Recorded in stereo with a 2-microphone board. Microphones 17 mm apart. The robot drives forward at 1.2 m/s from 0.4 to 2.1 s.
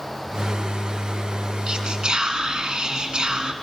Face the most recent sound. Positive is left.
turn(degrees=-50)  # may be behind; listen again after turning